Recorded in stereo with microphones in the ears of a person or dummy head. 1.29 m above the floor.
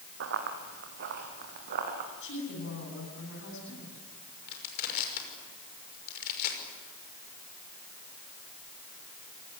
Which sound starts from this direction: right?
Running footsteps, at 0.2 s.